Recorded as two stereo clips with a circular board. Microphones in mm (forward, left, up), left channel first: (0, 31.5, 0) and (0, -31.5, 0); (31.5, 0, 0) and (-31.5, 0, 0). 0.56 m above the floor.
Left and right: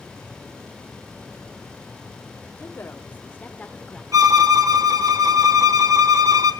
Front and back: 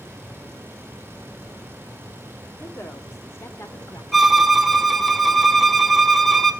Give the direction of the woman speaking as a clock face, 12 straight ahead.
10 o'clock.